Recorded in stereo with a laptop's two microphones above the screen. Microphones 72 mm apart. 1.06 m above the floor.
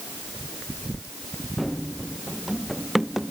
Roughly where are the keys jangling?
I don't hear keys jangling.